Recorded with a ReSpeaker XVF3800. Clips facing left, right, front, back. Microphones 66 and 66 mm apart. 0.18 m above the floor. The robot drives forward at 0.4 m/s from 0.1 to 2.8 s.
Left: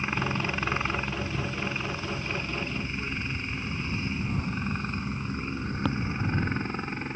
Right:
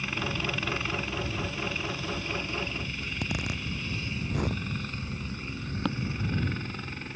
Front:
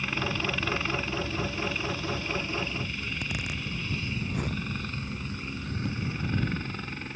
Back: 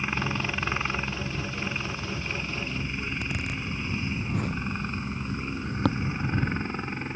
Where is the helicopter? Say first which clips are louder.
Left 3 dB, back 1 dB; 125° left; by 7.2 s 130° left.